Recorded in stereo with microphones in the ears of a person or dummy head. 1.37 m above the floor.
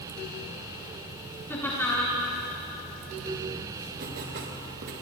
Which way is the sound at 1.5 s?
15° left (ahead or behind).